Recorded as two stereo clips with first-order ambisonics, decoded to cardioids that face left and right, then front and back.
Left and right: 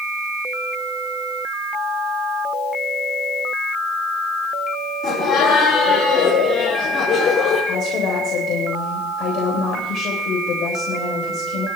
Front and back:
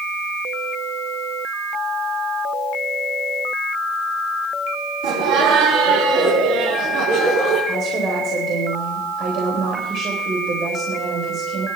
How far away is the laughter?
About 4.5 m.